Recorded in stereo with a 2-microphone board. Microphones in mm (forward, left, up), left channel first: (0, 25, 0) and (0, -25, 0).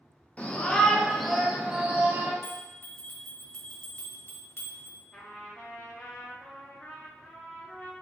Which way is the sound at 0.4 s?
30° left (ahead or behind).